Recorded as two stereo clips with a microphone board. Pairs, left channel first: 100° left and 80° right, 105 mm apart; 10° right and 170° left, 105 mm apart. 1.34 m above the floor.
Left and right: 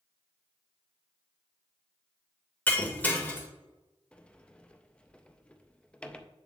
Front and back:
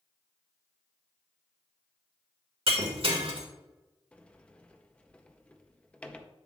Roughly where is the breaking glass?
Behind.